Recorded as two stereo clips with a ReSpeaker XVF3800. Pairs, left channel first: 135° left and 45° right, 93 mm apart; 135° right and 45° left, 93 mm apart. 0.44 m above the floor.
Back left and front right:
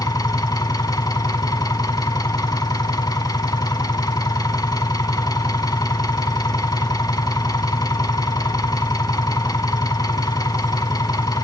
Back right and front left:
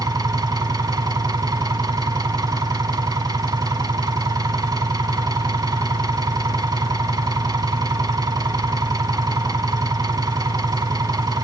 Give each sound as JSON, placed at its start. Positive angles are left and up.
{"t": 0.0, "sound": "an engine running", "azimuth_deg": 90, "distance_m": 1.0}